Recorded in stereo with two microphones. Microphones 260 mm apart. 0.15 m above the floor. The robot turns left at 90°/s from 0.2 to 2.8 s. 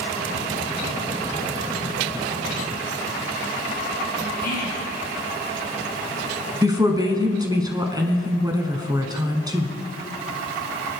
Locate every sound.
4.4 s whispering: 35° left (ahead or behind), 1.3 m
6.6 s a woman speaking: 15° right (ahead or behind), 1.1 m